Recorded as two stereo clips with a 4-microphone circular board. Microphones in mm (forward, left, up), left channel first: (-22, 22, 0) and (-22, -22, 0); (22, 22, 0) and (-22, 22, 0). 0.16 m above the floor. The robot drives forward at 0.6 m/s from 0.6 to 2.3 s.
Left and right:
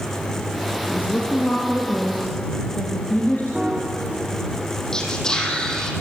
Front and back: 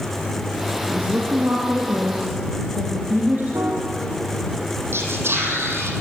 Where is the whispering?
165° left, 5.5 m.